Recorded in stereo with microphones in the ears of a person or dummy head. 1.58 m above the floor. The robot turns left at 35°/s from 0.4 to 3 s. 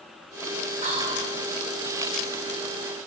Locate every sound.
0.8 s whispering: 45° right (ahead or behind), 2 m; by 1.3 s 25° right (ahead or behind), 2 m